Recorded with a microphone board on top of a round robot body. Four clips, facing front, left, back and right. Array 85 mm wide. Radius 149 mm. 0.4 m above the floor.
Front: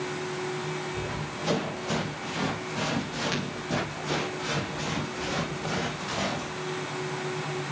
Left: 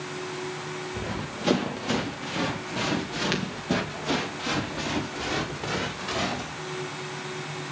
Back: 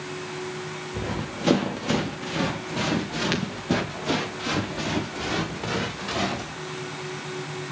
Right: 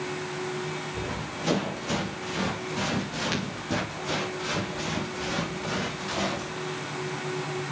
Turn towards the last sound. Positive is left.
turn(degrees=150)